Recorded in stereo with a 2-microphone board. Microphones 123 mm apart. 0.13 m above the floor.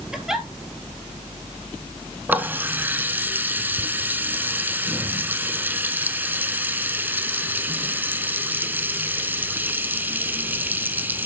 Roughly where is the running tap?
Centre.